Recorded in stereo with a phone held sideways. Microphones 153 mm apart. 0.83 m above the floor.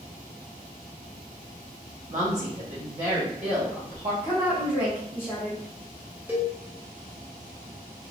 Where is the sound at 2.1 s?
50° right (ahead or behind), 1.7 m.